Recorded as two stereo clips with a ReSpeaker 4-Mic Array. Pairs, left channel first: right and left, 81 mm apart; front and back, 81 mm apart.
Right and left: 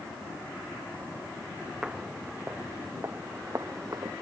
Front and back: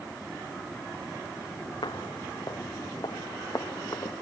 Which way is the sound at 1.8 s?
10° left.